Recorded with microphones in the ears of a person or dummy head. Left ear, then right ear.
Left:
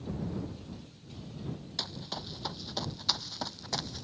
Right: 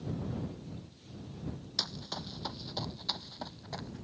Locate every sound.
1.8 s running footsteps: 15° right (ahead or behind); by 4.0 s 35° left (ahead or behind)